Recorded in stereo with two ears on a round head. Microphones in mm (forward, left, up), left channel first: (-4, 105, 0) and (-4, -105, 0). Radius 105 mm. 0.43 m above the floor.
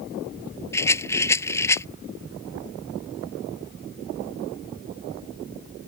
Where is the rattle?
10° left (ahead or behind).